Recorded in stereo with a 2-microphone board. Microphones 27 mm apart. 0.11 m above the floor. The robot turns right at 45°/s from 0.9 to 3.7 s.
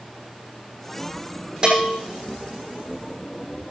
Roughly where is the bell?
Right.